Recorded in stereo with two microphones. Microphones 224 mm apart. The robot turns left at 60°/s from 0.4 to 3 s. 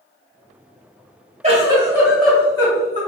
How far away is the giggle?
About 1.5 m.